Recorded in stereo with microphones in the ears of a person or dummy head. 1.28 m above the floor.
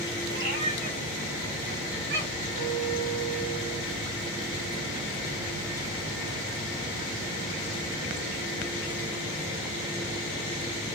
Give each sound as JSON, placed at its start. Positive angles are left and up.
{"t": 0.3, "sound": "a cat meowing", "side_deg": -55, "distance_m": 4.0}
{"t": 2.6, "sound": "a guitar", "side_deg": -50, "distance_m": 5.0}